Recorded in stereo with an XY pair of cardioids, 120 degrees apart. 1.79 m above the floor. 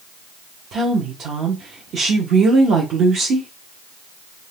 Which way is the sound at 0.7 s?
60° right.